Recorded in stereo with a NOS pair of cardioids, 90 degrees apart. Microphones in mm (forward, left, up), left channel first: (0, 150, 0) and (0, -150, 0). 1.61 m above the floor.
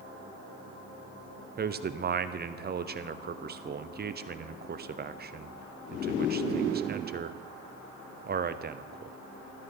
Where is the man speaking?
35° right, 0.7 m.